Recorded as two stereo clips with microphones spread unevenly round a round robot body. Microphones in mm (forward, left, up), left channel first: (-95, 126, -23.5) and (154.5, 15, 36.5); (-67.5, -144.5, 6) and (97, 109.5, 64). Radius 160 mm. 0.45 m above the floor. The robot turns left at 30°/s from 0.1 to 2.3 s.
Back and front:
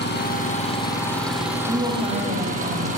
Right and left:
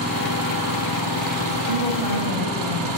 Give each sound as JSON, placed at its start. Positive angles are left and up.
{"t": 0.0, "sound": "an engine running", "azimuth_deg": 105, "distance_m": 4.0}
{"t": 1.7, "sound": "a woman speaking", "azimuth_deg": 55, "distance_m": 3.5}